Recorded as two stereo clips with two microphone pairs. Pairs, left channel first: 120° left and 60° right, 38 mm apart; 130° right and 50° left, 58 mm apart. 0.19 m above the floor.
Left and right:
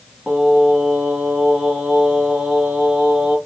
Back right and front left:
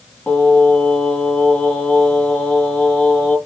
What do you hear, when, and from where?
0.3 s singing: 90° right, 1.6 m